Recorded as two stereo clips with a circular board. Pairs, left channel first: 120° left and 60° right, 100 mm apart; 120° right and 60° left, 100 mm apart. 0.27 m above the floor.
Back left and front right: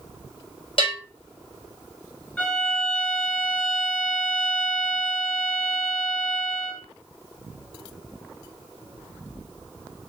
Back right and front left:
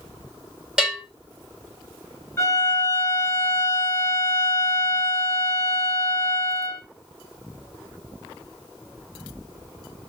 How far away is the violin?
About 1.0 m.